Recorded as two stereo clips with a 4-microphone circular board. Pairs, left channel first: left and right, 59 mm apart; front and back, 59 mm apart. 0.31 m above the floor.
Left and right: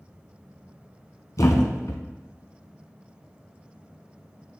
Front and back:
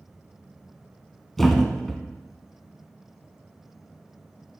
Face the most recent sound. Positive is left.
turn(degrees=85)